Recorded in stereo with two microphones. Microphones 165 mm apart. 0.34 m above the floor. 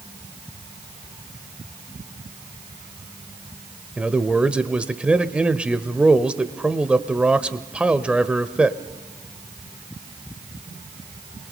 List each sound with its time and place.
4.0 s a man speaking: 5° right (ahead or behind), 0.9 m